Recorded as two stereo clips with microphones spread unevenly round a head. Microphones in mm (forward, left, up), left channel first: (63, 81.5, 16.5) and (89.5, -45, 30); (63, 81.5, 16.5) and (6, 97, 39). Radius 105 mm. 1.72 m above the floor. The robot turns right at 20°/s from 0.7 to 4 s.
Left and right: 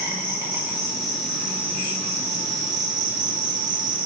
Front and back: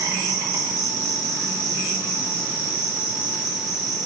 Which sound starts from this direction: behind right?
An insect, at 0.0 s.